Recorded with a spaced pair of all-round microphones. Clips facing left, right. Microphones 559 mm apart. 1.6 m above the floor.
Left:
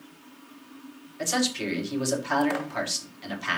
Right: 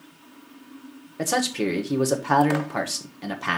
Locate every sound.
1.2 s a man speaking: 70° right (ahead or behind), 1.4 m